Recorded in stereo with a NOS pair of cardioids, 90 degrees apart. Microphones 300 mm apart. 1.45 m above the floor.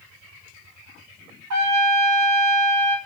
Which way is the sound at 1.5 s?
60° right.